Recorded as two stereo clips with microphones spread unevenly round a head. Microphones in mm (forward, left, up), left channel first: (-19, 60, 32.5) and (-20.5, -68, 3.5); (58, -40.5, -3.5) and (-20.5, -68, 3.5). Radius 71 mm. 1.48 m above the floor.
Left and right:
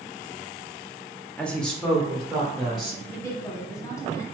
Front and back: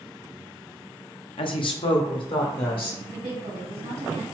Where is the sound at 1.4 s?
5° left, 0.7 m; by 3.0 s straight ahead, 1.8 m.